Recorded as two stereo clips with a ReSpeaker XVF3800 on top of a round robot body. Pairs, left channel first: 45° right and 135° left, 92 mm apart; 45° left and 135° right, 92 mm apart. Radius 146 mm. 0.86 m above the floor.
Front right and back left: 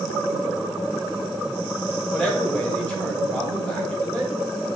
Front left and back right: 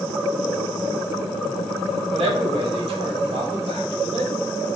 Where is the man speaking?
125° right, 1.8 m.